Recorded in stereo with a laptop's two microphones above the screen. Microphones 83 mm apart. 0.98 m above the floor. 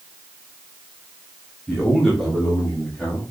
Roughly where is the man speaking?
Centre.